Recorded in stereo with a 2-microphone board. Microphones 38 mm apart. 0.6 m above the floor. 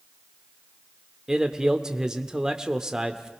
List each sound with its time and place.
1.3 s a man speaking: 15° right (ahead or behind), 1.2 m